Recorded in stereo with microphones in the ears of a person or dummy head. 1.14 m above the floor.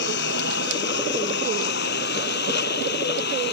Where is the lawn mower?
65° left (ahead or behind).